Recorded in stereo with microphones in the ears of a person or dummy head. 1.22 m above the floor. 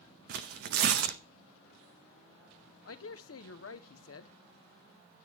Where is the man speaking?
70° left (ahead or behind), 1.0 m.